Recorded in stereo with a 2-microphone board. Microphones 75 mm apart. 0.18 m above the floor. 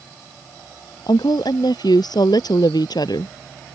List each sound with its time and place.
1.1 s a woman speaking: 70° left (ahead or behind)